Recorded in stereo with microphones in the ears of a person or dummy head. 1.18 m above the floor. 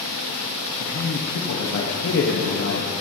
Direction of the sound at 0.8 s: 70° left (ahead or behind).